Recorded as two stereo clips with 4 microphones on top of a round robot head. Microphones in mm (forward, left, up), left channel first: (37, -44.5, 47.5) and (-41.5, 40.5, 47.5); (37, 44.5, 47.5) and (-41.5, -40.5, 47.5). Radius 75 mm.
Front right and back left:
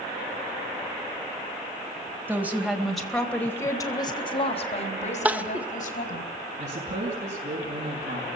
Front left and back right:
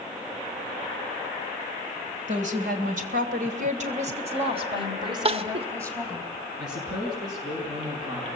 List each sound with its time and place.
2.3 s a woman speaking: 155° right, 3.5 m; by 6.2 s 60° right, 4.5 m
5.2 s crying: 150° right, 1.2 m
6.6 s a man speaking: 165° left, 5.5 m